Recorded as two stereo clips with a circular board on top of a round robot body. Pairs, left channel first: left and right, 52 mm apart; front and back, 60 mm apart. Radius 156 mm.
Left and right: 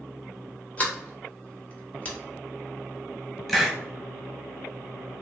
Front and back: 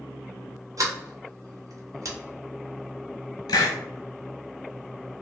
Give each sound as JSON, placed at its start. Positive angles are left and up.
{"t": 0.8, "sound": "a sliding door", "azimuth_deg": 150, "distance_m": 1.1}
{"t": 3.5, "sound": "a hiss", "azimuth_deg": 5, "distance_m": 0.6}